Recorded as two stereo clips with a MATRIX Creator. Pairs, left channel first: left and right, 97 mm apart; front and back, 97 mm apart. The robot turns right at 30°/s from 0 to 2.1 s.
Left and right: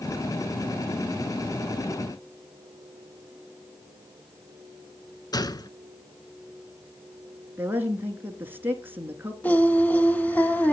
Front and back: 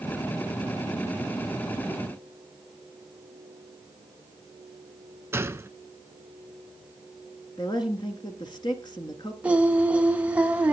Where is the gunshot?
120° left, 0.6 m.